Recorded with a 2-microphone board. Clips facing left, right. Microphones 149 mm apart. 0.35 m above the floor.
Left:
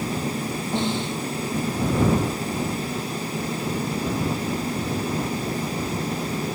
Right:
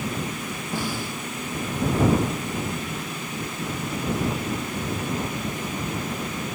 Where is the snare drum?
25° left (ahead or behind).